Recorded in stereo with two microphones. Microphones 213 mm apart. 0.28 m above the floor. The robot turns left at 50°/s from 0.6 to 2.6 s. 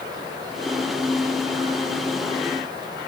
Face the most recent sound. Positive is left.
No sound to turn to.